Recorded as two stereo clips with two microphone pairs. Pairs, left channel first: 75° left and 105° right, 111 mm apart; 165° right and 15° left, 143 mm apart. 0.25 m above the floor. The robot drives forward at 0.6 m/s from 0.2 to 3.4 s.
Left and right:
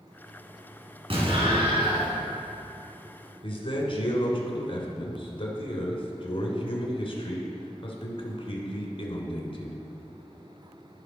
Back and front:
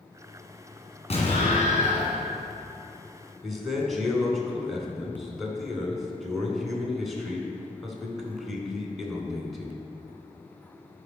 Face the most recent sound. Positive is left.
turn(degrees=105)